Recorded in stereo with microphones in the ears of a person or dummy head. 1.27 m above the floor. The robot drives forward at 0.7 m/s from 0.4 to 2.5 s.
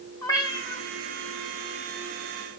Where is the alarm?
I don't hear an alarm.